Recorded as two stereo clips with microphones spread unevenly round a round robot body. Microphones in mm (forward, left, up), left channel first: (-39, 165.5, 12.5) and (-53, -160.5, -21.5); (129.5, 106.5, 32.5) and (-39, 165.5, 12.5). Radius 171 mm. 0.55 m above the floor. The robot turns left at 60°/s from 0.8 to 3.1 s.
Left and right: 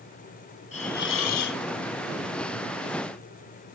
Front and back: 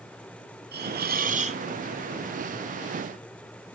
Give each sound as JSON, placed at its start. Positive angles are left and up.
{"t": 0.7, "sound": "a hiss", "azimuth_deg": 160, "distance_m": 1.2}